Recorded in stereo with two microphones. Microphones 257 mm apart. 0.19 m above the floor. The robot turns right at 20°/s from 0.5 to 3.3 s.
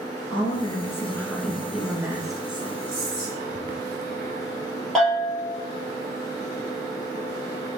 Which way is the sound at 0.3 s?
160° left.